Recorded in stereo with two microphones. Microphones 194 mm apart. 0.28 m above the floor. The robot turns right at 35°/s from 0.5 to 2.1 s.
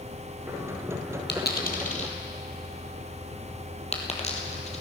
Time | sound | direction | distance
1.3 | a dropped coin | 65° left (ahead or behind) | 1.6 m